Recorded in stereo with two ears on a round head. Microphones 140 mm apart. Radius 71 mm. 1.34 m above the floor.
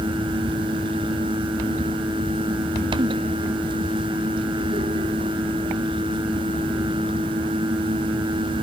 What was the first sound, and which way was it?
Only background noise.